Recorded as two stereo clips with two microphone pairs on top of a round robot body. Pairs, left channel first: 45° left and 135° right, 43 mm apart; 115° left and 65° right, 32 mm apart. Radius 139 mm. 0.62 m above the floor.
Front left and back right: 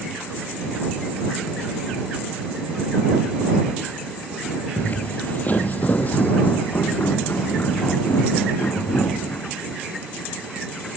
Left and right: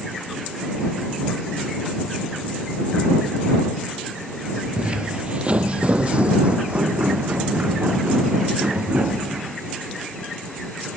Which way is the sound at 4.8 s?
10° right.